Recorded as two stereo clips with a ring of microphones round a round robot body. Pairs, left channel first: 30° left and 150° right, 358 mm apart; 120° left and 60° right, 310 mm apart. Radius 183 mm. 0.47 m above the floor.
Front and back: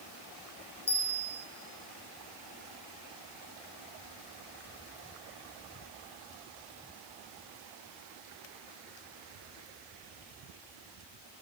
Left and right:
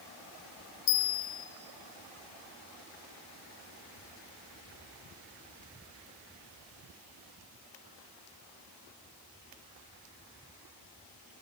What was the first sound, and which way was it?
A bell, 105° left.